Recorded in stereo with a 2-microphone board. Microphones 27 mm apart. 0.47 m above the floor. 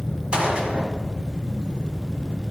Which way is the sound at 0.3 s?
40° right (ahead or behind).